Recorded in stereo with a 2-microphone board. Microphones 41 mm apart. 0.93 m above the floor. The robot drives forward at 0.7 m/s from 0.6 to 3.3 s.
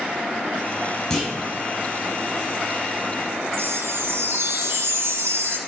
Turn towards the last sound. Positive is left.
turn(degrees=-80)